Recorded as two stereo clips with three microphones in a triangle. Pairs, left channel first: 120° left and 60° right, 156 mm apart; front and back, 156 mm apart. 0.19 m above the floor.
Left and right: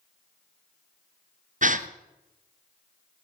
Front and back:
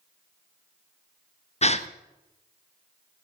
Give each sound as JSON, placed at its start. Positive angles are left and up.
{"t": 1.6, "sound": "a gasp", "azimuth_deg": -40, "distance_m": 1.0}